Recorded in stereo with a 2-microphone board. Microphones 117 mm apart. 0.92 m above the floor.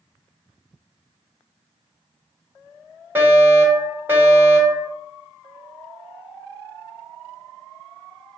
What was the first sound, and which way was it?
A fire alarm, 20° right (ahead or behind).